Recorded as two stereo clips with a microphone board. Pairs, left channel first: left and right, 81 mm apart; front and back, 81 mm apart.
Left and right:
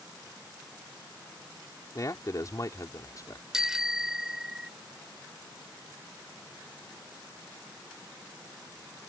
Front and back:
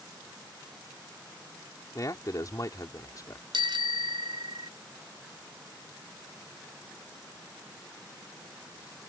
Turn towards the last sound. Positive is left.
turn(degrees=-175)